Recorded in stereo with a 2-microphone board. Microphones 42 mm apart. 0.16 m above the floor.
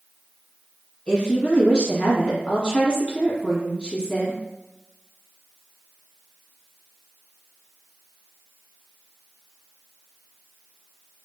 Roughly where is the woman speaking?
Left.